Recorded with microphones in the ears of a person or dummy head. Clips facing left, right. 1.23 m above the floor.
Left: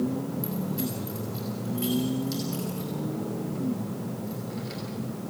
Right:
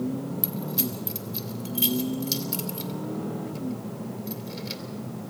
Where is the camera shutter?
I don't hear a camera shutter.